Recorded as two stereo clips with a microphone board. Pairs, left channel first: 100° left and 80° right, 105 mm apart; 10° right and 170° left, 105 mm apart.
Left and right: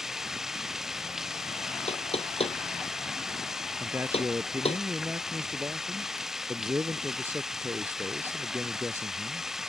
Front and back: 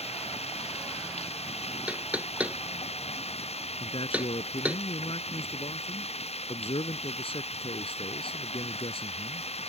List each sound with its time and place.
0.0 s running water: 5° left
1.9 s knocking: 95° left
3.8 s a man speaking: 10° right